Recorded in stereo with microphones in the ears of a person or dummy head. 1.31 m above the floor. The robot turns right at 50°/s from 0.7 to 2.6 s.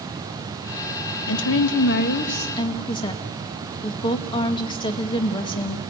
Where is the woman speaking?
85° left, 1.2 m; by 5.8 s 150° left, 1.2 m.